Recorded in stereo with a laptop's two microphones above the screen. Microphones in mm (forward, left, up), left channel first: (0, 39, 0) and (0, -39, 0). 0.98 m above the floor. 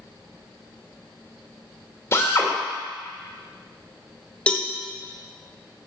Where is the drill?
30° left (ahead or behind), 2.5 m.